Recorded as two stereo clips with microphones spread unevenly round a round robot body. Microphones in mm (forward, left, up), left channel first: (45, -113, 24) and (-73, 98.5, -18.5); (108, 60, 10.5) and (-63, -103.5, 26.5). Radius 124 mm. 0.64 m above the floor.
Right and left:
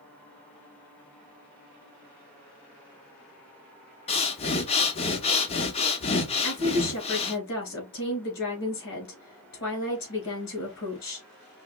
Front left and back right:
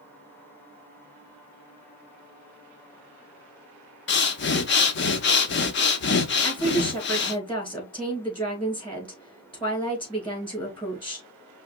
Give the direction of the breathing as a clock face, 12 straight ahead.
12 o'clock.